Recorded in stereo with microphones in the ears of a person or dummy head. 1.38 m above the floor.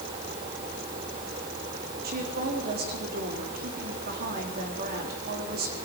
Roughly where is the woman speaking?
Right.